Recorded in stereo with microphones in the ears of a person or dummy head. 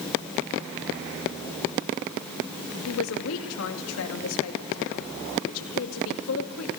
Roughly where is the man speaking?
Left.